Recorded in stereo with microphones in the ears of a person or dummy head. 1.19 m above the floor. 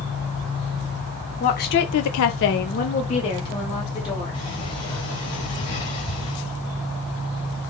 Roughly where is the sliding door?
Left.